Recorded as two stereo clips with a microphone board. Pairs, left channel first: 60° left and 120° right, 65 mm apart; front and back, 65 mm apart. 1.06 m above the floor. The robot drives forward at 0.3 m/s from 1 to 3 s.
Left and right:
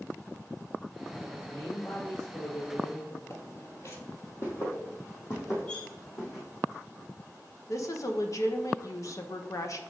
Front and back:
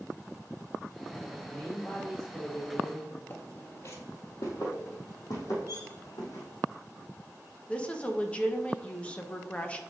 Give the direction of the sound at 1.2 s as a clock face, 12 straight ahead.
10 o'clock.